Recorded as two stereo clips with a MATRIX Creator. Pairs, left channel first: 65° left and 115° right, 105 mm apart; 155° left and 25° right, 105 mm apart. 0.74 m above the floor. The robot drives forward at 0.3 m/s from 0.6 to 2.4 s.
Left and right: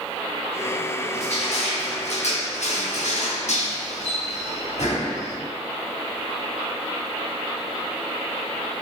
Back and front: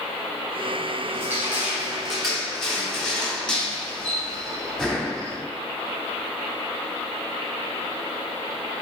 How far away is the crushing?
About 0.9 m.